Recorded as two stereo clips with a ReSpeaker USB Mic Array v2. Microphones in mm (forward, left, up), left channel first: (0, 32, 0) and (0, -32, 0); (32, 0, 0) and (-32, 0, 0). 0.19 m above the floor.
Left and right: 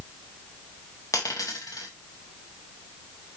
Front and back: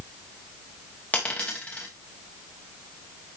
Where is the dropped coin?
65° left, 3 m.